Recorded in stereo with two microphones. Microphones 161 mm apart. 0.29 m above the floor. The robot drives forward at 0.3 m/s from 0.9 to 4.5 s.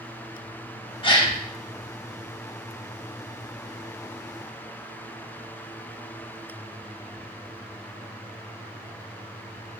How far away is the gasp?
About 0.7 m.